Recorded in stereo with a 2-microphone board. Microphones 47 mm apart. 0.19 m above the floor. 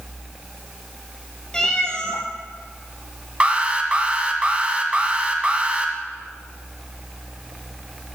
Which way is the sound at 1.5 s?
15° left (ahead or behind).